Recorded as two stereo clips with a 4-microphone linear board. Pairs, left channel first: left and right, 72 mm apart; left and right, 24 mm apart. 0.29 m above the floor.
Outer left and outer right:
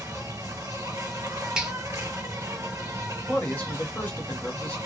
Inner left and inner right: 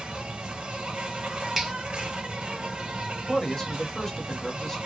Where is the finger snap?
10° right (ahead or behind), 0.9 m.